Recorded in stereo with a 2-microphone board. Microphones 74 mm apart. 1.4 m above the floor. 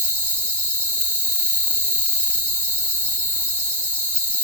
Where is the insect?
20° left (ahead or behind), 1.8 m.